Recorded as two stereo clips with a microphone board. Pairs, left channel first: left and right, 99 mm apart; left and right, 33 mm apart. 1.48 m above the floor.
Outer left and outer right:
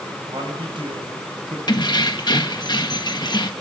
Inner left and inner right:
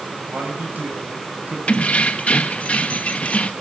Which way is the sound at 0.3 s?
55° right (ahead or behind).